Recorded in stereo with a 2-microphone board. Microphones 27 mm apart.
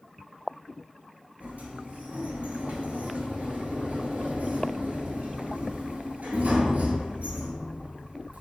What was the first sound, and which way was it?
A sliding door, 75° right (ahead or behind).